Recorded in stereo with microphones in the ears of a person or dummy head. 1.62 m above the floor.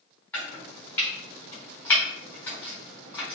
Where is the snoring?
I don't hear snoring.